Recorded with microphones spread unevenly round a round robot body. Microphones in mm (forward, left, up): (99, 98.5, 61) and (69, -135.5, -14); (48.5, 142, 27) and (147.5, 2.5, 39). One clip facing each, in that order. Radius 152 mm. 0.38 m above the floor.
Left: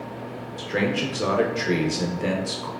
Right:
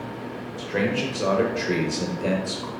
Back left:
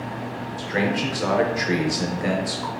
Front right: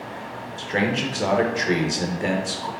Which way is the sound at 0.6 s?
Straight ahead.